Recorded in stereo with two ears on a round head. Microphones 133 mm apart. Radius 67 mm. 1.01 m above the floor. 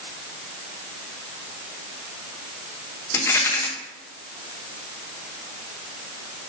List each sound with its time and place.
3.1 s a rattle: 15° left (ahead or behind), 1.0 m